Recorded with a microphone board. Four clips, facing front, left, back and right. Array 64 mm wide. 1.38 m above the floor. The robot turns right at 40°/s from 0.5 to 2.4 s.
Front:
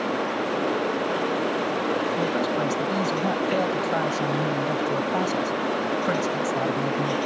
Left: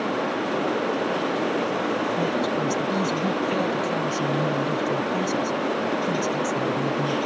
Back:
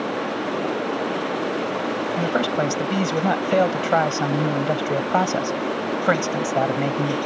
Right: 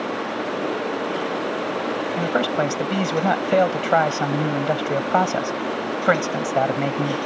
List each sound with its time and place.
2.2 s a man speaking: 130° right; by 7.2 s 120° right